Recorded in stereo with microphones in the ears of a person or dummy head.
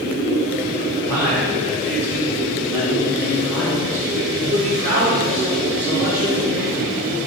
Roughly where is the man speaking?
Right.